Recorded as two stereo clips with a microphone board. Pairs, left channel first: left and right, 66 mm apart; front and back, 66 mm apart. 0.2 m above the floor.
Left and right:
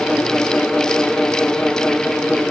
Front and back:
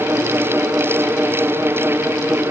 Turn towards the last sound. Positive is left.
No sound to turn to.